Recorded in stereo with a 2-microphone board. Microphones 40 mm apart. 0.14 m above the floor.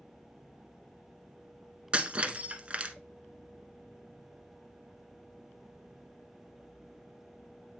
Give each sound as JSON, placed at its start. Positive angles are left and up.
{"t": 1.9, "sound": "breaking glass", "side_deg": -30, "distance_m": 0.6}